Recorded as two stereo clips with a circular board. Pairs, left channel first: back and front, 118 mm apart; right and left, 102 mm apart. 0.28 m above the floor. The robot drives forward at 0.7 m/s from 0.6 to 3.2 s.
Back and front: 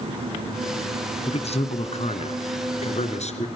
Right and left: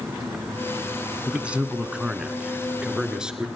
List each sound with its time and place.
1.3 s a man speaking: 165° left, 2.5 m; by 3.5 s 170° left, 3.5 m